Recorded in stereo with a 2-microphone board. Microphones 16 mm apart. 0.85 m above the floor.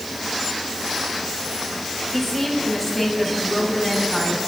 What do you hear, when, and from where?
2.1 s a woman speaking: 5° left (ahead or behind), 4 m; by 4.4 s 10° left (ahead or behind), 6 m